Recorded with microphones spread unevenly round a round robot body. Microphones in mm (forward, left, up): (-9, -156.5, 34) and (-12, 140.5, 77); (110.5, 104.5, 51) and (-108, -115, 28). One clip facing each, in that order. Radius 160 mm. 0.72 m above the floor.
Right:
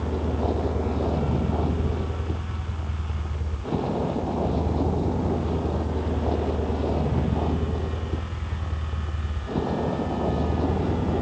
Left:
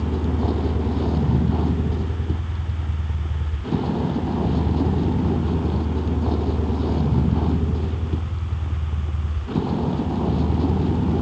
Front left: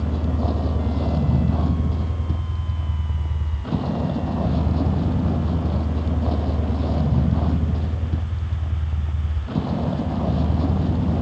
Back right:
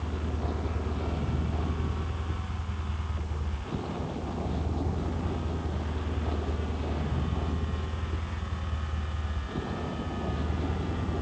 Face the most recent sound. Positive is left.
turn(degrees=25)